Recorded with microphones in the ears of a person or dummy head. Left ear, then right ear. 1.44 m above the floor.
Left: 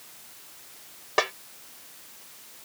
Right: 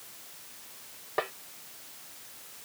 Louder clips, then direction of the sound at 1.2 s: Left 7 dB; 80° left.